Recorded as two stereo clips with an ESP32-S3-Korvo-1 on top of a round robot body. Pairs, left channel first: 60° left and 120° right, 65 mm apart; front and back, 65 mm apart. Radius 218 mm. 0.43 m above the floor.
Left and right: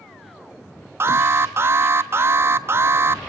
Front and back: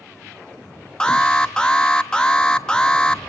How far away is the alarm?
About 1.3 m.